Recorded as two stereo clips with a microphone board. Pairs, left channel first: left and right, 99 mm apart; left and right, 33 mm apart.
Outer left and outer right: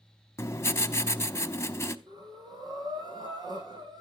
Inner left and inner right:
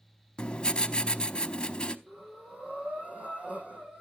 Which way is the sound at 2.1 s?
45° right (ahead or behind).